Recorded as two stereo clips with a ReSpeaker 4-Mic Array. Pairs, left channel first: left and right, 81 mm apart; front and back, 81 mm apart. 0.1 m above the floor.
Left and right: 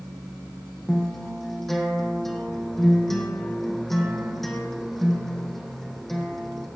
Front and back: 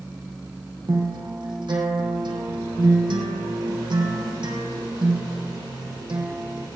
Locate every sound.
0.9 s a guitar: 175° left, 3.5 m